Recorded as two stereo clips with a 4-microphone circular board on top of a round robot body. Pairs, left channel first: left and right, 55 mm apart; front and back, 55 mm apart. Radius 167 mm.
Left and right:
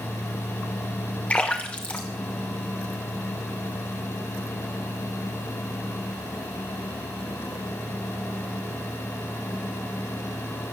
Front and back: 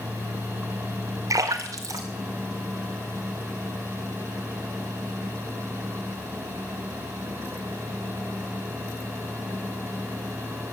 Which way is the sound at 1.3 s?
160° left.